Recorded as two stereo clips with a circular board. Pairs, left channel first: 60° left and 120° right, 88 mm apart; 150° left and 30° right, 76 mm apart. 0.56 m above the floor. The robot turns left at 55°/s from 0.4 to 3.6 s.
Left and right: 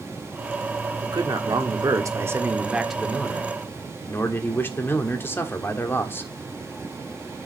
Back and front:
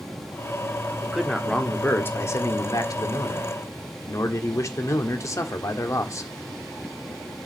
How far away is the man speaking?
About 1.4 m.